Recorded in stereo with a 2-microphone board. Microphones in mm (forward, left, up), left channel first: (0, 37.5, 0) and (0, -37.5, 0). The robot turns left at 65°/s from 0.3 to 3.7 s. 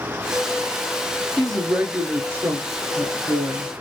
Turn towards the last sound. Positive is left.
turn(degrees=-140)